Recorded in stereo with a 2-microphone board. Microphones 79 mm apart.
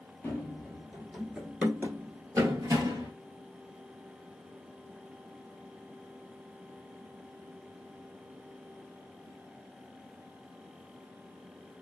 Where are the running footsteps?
20° left (ahead or behind), 1.0 m; by 3.1 s 50° right (ahead or behind), 1.2 m.